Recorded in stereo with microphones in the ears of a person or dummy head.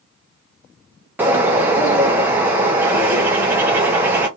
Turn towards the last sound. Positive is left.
turn(degrees=-10)  # may be behind; listen again after turning